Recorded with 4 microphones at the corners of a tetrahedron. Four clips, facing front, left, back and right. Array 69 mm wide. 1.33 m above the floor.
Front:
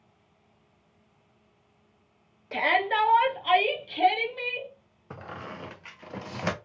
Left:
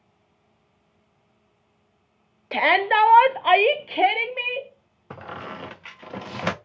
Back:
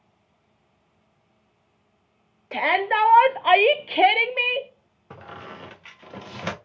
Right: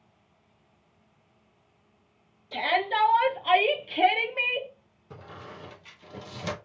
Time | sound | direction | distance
2.5 | a shout | 95° left | 0.9 m
5.1 | a squeak | 75° left | 0.5 m